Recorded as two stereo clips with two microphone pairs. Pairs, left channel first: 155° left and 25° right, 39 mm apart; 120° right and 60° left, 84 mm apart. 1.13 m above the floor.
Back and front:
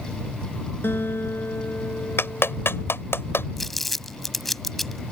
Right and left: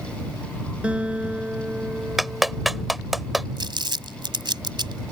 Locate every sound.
0.8 s a guitar: 140° left
2.2 s a clap: 150° left
3.6 s crumpling: 70° left